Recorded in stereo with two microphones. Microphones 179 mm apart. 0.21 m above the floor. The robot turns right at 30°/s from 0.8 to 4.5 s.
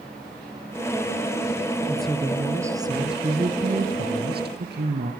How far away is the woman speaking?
About 3.5 m.